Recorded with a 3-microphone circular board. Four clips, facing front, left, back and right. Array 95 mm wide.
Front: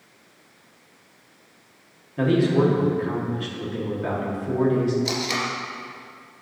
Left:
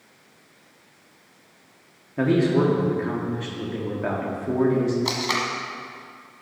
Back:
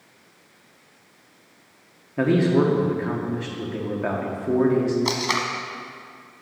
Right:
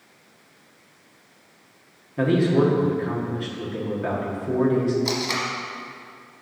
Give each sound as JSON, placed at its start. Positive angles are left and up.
{"t": 2.2, "sound": "a man speaking", "azimuth_deg": 165, "distance_m": 1.3}
{"t": 5.0, "sound": "tape being pulled", "azimuth_deg": 155, "distance_m": 1.1}